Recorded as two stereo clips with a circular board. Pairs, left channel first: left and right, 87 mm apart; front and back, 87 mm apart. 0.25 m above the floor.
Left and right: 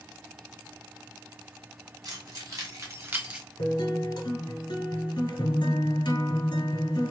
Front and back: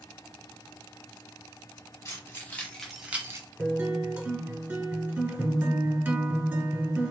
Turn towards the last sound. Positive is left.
turn(degrees=110)